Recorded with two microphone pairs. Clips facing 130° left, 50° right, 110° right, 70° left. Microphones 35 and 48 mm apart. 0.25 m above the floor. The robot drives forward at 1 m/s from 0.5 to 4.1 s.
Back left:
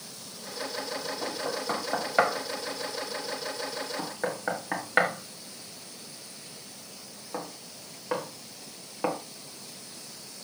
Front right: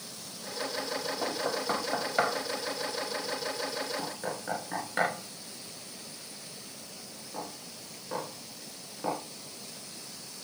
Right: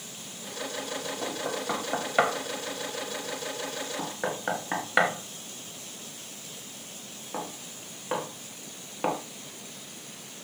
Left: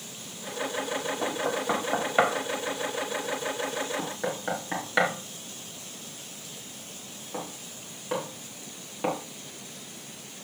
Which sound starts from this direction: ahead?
Knocking, at 1.2 s.